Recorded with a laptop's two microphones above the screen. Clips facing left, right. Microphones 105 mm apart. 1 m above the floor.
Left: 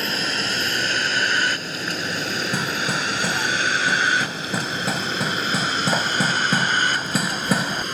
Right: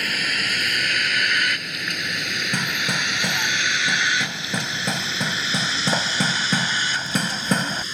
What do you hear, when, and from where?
0.0 s a vehicle: 30° left (ahead or behind); by 7.9 s 55° left (ahead or behind)
2.5 s hammering: 5° left (ahead or behind)